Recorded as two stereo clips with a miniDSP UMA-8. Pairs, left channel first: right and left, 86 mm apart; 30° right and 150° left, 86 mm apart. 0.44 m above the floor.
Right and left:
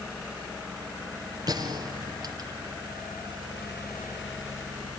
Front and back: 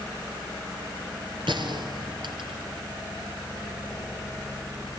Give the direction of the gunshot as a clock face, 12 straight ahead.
8 o'clock.